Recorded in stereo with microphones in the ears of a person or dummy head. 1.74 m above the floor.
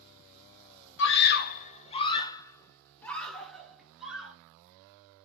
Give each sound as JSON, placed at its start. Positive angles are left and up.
{"t": 1.0, "sound": "a scream", "side_deg": 75, "distance_m": 0.7}